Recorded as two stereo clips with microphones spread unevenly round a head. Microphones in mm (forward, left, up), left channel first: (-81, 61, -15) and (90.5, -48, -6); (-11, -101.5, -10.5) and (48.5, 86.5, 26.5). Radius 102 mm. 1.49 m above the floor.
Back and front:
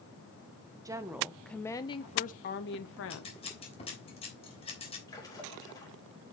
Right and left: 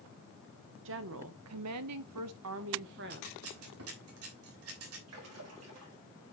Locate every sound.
0.8 s a woman speaking: 45° left, 1.2 m; by 3.4 s 125° left, 1.3 m
3.1 s scissors: 85° left, 3 m
5.1 s a splash: 75° left, 4 m